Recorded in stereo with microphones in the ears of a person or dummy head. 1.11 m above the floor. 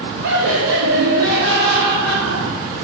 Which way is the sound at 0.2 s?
65° right (ahead or behind).